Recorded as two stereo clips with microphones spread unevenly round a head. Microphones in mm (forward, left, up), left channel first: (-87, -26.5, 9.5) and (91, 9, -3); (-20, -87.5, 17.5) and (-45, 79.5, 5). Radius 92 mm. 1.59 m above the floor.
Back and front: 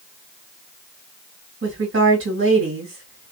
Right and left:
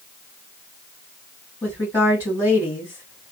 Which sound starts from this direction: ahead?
A woman speaking, at 1.6 s.